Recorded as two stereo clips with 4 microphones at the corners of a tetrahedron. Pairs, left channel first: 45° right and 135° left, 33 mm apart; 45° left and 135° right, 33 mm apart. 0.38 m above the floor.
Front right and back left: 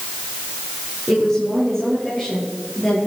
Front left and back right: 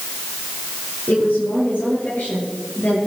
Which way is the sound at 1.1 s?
30° left.